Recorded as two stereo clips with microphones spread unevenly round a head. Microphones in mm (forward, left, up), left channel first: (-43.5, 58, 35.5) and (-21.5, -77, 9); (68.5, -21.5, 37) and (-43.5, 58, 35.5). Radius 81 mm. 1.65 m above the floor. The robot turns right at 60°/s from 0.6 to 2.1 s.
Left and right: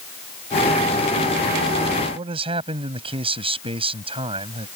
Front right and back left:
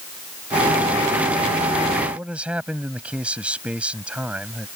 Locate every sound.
2.1 s a man speaking: 130° right